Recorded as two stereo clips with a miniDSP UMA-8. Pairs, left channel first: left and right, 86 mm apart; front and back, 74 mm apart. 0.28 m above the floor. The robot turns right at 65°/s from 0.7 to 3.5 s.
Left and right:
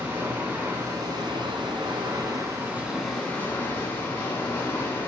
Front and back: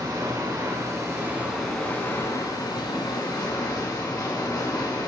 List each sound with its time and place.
0.0 s running water: 150° right, 1.8 m; by 5.1 s 30° left, 1.8 m